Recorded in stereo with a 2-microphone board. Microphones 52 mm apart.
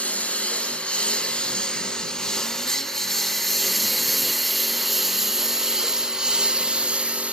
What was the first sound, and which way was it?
A lawn mower, 25° left (ahead or behind).